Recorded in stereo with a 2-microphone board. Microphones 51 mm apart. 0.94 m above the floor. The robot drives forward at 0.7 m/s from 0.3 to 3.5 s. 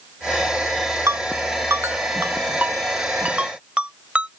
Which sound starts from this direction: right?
A ringtone, at 1.1 s.